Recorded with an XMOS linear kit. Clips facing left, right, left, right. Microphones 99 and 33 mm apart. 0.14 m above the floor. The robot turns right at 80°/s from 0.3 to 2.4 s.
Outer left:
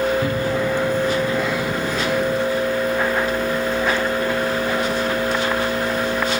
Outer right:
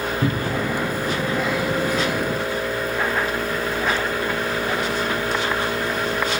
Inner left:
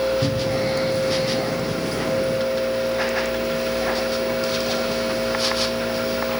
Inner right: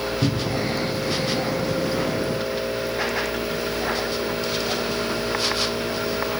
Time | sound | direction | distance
0.2 | a cupboard door | 25° right (ahead or behind) | 0.7 m